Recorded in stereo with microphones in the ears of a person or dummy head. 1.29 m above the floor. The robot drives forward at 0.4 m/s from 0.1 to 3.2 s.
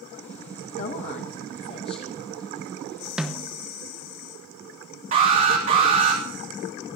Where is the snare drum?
5° right (ahead or behind), 1.0 m.